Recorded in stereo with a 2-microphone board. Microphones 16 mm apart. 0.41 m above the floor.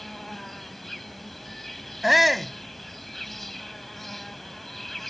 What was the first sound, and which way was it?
An insect, 10° left (ahead or behind).